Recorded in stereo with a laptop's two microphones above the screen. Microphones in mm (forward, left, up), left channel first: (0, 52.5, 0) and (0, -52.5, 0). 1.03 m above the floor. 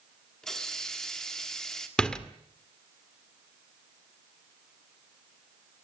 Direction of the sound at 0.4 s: 5° left (ahead or behind).